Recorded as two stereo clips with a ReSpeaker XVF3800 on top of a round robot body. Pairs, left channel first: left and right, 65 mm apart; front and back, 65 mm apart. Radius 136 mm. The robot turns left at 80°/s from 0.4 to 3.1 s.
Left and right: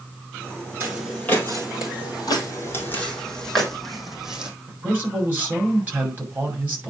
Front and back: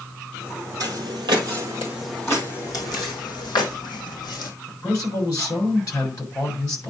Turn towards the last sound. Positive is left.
turn(degrees=-30)